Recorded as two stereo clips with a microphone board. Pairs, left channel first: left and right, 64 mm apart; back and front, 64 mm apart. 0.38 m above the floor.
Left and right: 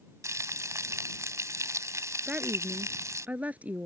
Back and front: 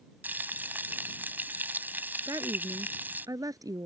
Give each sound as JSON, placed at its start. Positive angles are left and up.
{"t": 0.2, "sound": "frying", "azimuth_deg": -55}
{"t": 2.3, "sound": "a woman speaking", "azimuth_deg": -20}